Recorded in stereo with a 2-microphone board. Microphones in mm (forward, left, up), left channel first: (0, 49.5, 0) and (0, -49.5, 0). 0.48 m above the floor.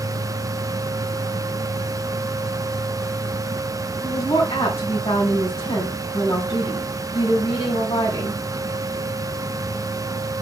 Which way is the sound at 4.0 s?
70° left (ahead or behind).